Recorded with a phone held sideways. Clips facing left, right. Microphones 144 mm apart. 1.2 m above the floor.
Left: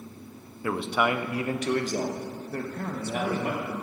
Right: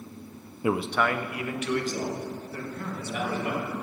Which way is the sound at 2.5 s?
50° left (ahead or behind).